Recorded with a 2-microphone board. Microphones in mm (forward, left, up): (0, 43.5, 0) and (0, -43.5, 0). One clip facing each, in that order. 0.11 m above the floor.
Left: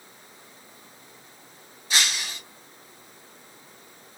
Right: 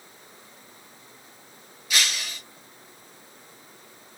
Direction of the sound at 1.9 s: 35° left (ahead or behind).